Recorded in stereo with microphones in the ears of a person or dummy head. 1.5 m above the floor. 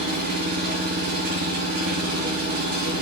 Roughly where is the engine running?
Right.